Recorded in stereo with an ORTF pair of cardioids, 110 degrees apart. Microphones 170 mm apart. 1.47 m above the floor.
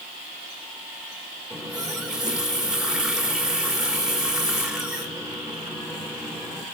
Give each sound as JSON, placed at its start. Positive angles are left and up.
{"t": 1.5, "sound": "a running tap", "azimuth_deg": -5, "distance_m": 2.5}